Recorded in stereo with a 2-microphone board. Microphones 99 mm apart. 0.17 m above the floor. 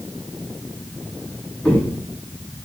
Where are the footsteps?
5° left (ahead or behind), 7 m; by 2.7 s 10° left (ahead or behind), 5.5 m.